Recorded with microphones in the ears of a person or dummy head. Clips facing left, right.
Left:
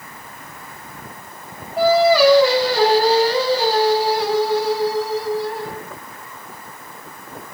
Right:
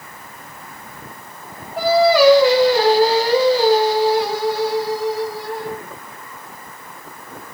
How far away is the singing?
About 1.7 m.